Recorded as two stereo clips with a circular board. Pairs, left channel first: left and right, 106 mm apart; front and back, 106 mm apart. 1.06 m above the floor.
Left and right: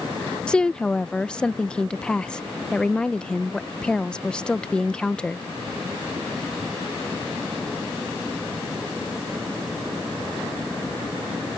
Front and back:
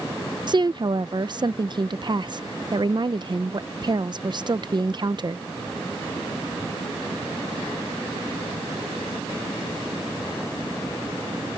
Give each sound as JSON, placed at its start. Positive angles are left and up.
{"t": 0.5, "sound": "a woman speaking", "azimuth_deg": 165}